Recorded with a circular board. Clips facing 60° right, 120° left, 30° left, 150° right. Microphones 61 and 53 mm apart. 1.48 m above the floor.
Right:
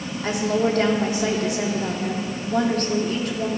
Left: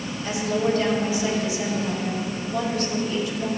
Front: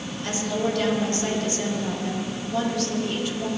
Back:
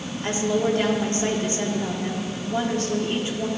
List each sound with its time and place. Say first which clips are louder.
0.2 s a woman speaking: right 2 dB, back 4 dB; 90° right, 3 m